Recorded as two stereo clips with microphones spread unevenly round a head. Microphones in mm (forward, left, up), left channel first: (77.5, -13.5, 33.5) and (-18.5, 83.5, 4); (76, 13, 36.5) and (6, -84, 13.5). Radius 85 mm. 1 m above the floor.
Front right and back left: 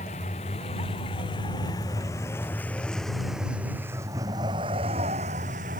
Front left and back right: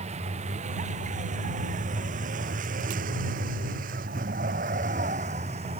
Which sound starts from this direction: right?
A vehicle, at 0.0 s.